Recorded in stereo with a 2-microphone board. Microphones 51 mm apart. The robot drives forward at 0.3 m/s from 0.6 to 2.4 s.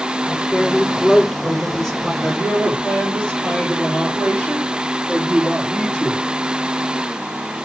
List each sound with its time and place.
0.2 s a woman speaking: 10° left (ahead or behind), 6 m
2.2 s a woman speaking: 15° left (ahead or behind), 4.5 m